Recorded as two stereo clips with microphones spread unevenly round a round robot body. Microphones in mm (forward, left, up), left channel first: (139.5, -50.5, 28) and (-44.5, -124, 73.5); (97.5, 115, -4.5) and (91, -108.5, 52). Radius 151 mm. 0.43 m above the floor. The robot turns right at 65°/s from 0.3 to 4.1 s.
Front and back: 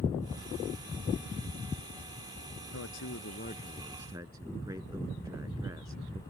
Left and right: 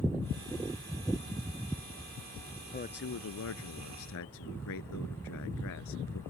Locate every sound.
2.7 s a man speaking: 35° left; by 6.2 s 125° left